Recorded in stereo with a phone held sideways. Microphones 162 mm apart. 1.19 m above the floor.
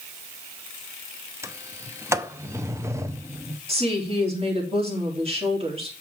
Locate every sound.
1.4 s a sliding door: 15° right (ahead or behind), 0.6 m
3.7 s a woman speaking: 35° right (ahead or behind), 2.5 m